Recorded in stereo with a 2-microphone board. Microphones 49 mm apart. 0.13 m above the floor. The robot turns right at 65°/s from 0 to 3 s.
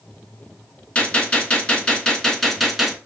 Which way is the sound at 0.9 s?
25° left (ahead or behind).